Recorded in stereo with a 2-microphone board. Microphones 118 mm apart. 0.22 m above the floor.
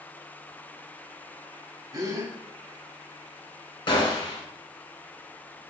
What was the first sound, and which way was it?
A gasp, 35° right (ahead or behind).